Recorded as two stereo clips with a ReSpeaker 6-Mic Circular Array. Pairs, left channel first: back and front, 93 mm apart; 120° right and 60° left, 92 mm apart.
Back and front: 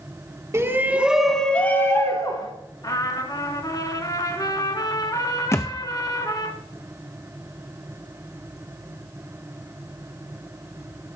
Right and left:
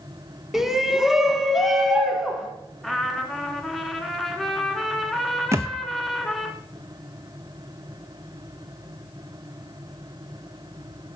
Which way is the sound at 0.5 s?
20° right.